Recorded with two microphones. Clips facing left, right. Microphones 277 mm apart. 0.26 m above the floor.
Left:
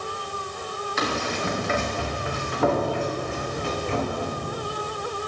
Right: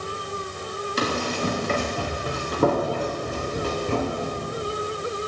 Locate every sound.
1.0 s running footsteps: 40° right (ahead or behind), 4 m; by 4.4 s 50° right (ahead or behind), 5.5 m